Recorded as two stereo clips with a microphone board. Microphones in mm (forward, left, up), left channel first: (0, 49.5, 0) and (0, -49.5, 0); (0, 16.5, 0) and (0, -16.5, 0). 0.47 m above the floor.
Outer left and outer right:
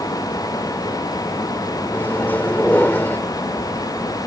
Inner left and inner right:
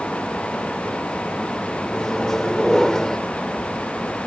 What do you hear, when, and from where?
1.9 s a microwave: 20° left (ahead or behind)